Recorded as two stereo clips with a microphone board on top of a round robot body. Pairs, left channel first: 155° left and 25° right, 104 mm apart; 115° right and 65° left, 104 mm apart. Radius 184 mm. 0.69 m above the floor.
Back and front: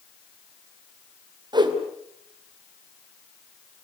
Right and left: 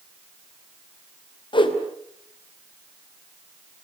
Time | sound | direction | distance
1.5 | a whoosh | 70° right | 3 m